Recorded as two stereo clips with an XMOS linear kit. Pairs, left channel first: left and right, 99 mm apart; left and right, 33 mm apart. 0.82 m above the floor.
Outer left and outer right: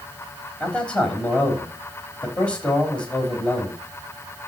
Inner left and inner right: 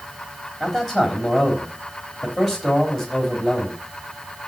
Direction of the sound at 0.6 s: 10° left (ahead or behind).